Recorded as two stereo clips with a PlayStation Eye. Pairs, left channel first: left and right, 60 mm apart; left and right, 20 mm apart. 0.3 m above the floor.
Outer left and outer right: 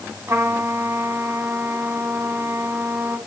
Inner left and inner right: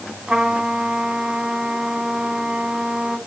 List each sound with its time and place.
0.3 s a trumpet: 55° right (ahead or behind), 2.5 m